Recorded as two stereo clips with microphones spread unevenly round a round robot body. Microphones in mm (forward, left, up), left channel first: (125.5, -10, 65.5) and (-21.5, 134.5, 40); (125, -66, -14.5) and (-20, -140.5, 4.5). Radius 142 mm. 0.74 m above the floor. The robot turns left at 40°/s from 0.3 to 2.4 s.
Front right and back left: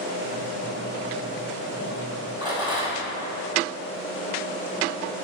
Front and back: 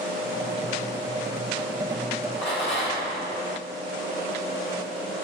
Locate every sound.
2.4 s a rattle: 65° left, 4 m